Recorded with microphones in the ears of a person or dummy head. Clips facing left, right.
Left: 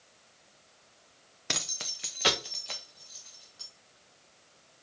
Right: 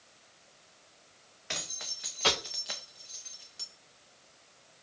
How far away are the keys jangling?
About 1.2 m.